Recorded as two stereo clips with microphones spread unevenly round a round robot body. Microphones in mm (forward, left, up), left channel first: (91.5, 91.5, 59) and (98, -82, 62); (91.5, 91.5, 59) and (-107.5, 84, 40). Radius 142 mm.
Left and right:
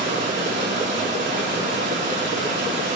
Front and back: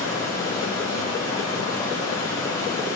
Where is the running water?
75° right, 5.5 m.